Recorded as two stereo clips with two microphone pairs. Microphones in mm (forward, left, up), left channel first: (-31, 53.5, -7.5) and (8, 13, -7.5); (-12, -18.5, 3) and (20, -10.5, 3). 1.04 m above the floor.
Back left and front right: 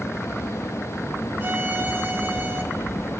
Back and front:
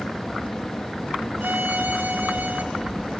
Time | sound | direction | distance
1.4 | a violin | 10° left | 2 m